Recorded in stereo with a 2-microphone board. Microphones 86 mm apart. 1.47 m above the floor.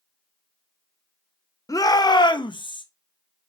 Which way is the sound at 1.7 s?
45° left (ahead or behind).